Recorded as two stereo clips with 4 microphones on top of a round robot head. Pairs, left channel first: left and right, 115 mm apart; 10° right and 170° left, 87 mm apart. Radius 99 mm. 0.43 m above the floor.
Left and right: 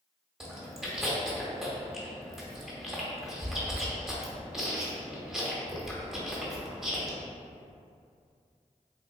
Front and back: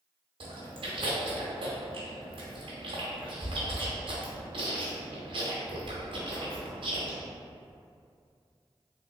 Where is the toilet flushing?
I don't hear a toilet flushing.